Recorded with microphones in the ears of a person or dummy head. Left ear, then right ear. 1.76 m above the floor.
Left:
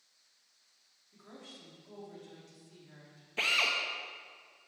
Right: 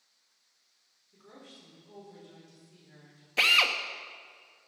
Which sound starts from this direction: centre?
A drill, at 3.4 s.